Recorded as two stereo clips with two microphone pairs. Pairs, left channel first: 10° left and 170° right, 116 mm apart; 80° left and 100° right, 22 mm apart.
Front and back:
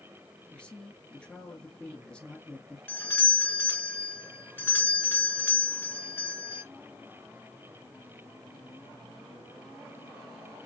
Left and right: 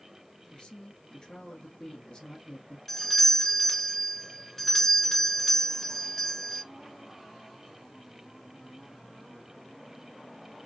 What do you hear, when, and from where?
0.5 s a woman speaking: 90° left, 1.7 m
2.9 s a doorbell: 35° left, 1.5 m